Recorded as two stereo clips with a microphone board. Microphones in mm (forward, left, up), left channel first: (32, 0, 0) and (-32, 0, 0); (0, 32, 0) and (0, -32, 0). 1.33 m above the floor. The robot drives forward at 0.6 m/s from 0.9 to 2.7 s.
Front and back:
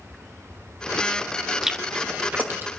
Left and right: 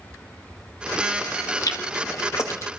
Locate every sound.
1.6 s chewing: 95° left, 1.1 m; by 2.7 s 125° left, 1.3 m